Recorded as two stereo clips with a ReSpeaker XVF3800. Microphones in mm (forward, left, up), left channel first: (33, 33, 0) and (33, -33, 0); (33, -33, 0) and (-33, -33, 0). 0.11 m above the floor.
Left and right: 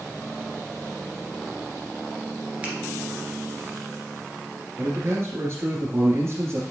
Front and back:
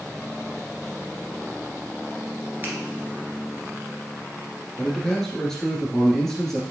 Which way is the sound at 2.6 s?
145° right.